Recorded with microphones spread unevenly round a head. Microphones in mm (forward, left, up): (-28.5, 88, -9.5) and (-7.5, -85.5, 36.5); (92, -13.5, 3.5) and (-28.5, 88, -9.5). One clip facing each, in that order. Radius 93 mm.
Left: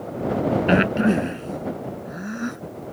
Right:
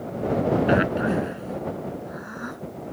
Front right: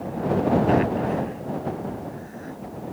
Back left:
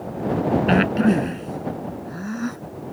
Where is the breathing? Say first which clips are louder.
Left 3 dB, back left 3 dB; 160° left.